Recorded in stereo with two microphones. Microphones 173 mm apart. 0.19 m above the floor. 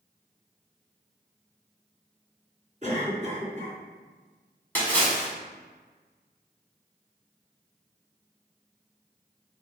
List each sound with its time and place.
2.8 s a cough: 45° right (ahead or behind), 1.9 m
4.8 s a splash: 10° left (ahead or behind), 1.2 m